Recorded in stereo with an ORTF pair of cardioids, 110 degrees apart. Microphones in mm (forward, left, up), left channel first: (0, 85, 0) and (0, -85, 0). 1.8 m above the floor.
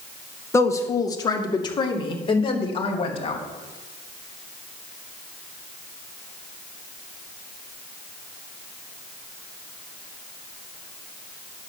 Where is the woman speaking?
15° left, 2.0 m; by 3.4 s 35° left, 3 m.